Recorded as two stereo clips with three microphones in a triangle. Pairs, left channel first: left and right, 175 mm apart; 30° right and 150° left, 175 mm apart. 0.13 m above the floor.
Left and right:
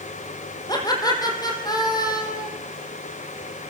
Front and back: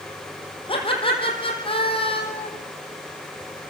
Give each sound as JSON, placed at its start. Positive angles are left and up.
{"t": 0.7, "sound": "laughter", "azimuth_deg": 25, "distance_m": 5.5}